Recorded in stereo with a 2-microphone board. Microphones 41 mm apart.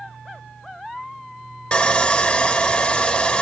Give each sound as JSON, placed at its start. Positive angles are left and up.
{"t": 1.7, "sound": "sawing", "side_deg": 30, "distance_m": 0.6}